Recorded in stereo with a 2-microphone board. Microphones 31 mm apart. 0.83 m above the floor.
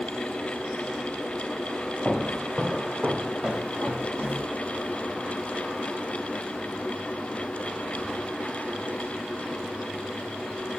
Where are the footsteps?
40° right (ahead or behind), 1.6 m; by 4.5 s 60° right (ahead or behind), 1.6 m.